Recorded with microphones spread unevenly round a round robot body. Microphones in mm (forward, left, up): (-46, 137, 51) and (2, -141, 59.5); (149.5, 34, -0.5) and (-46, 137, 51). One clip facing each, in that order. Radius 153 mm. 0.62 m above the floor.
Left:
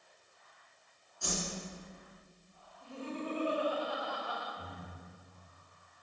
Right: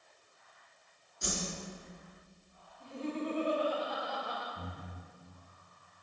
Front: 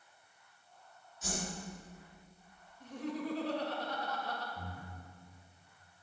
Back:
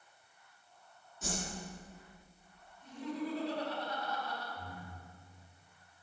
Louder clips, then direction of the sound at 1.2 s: Even, back 1 dB; 150° right.